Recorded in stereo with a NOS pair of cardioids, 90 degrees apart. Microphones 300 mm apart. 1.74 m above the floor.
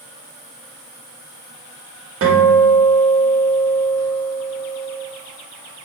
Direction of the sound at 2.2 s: 50° right.